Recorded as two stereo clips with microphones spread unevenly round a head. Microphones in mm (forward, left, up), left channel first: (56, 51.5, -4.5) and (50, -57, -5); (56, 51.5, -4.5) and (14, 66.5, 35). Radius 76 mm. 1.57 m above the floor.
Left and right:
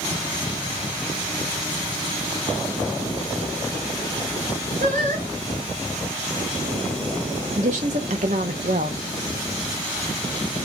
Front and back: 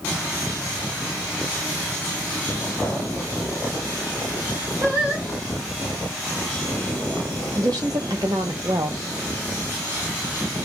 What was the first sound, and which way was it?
Singing, 130° right.